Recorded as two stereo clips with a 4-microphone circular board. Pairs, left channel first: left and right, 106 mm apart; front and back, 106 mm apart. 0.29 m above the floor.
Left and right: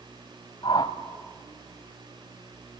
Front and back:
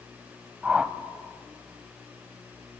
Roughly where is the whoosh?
Left.